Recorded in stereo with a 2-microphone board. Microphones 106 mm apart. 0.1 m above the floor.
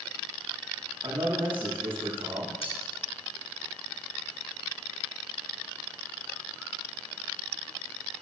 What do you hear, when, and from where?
1.0 s a man speaking: 60° right (ahead or behind), 6.5 m
2.6 s cutlery clinking: 70° left (ahead or behind), 3.5 m